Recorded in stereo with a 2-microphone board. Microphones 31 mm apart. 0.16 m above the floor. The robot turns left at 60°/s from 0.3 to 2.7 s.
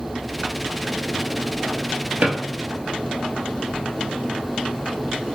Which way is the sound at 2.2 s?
65° right (ahead or behind).